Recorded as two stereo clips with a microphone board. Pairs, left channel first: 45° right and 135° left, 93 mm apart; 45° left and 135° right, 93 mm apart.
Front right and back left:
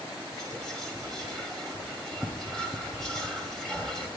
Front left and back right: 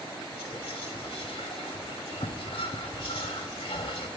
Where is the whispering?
40° left, 0.6 m.